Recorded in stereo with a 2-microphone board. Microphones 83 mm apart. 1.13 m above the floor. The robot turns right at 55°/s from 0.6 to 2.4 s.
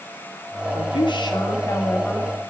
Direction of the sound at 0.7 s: 90° left.